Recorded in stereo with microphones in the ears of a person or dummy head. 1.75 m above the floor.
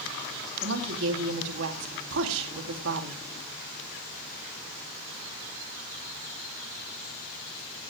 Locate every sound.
0.6 s a woman speaking: 70° right (ahead or behind), 3 m